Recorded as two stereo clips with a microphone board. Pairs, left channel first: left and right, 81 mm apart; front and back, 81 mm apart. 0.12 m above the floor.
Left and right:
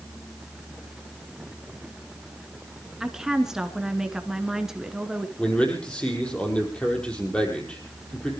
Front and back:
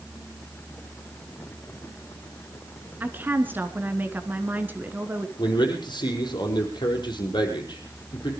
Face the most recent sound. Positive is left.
turn(degrees=15)